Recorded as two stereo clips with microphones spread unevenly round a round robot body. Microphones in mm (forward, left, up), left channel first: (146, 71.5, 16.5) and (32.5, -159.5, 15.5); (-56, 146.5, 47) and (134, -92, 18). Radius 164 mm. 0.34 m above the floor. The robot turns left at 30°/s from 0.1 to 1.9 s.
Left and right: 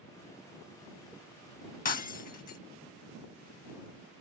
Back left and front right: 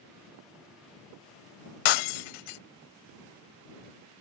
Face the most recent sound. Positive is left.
turn(degrees=130)